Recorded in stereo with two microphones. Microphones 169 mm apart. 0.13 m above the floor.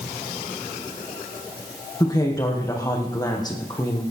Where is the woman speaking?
25° left (ahead or behind), 5 m.